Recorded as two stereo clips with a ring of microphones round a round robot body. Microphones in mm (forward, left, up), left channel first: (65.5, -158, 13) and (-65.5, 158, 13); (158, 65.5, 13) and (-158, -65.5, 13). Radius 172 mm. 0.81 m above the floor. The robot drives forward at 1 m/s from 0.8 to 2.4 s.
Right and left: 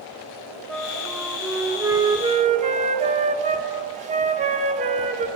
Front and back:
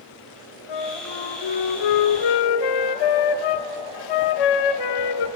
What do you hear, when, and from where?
0.7 s a flute: 20° left, 3 m; by 5.3 s 40° left, 1.6 m